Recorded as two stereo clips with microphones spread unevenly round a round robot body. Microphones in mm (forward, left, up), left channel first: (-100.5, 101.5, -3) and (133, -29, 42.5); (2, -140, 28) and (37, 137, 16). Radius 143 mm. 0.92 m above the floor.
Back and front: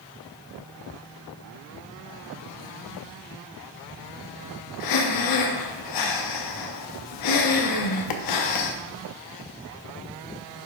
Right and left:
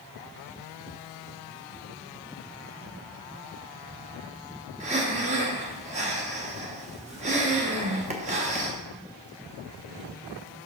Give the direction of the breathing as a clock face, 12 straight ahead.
7 o'clock.